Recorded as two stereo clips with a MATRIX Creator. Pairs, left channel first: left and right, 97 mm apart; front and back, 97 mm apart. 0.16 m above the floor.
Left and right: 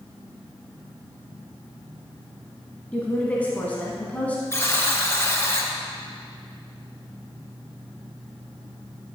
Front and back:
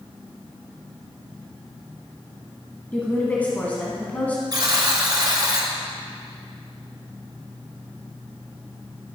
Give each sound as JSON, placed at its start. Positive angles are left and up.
{"t": 2.9, "sound": "a woman speaking", "azimuth_deg": 45, "distance_m": 1.3}
{"t": 4.5, "sound": "a buzzer", "azimuth_deg": 145, "distance_m": 1.6}